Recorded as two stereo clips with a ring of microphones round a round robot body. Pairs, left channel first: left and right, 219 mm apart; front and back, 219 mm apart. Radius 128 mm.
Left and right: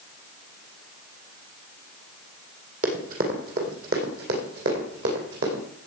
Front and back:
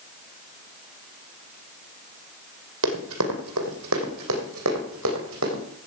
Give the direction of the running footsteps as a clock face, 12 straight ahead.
5 o'clock.